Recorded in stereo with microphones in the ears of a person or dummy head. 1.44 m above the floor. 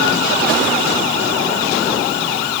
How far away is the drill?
I don't hear a drill.